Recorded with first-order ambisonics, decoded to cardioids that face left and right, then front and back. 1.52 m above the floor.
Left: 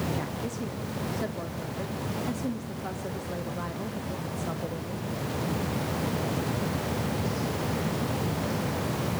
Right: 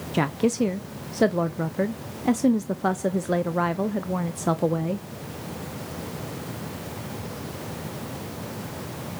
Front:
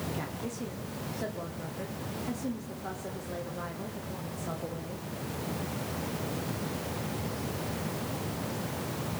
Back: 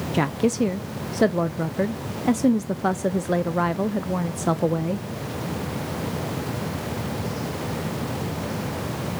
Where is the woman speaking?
140° right, 0.5 m.